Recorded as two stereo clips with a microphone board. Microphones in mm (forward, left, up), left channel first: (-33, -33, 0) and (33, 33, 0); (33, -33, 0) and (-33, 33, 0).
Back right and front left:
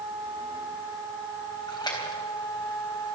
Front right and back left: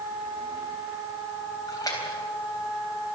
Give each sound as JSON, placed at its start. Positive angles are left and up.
{"t": 1.7, "sound": "a splash", "azimuth_deg": -95, "distance_m": 3.5}